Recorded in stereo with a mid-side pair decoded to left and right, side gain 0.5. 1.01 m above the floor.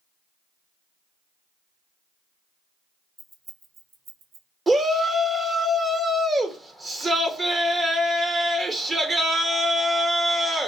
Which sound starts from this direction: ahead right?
A shout, at 4.7 s.